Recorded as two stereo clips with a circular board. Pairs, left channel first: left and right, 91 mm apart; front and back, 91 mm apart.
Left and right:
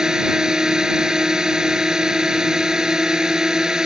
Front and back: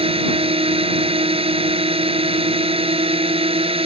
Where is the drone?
175° right.